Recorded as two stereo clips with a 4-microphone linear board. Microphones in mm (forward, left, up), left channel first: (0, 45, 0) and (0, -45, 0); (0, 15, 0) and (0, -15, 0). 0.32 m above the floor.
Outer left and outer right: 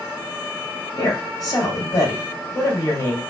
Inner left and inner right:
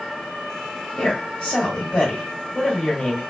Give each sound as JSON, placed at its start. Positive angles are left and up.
{"t": 1.0, "sound": "a woman speaking", "side_deg": 45, "distance_m": 2.0}